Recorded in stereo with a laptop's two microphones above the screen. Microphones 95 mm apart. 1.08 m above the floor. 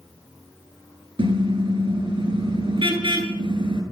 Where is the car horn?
60° right (ahead or behind), 9.5 m.